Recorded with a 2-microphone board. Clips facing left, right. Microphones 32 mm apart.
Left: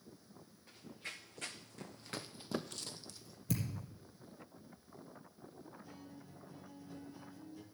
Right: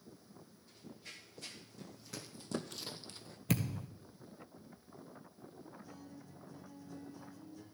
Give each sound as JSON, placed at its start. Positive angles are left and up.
{"t": 0.7, "sound": "running footsteps", "side_deg": 70, "distance_m": 1.8}
{"t": 3.5, "sound": "a thud", "side_deg": -60, "distance_m": 1.0}
{"t": 5.8, "sound": "a guitar", "side_deg": 25, "distance_m": 1.5}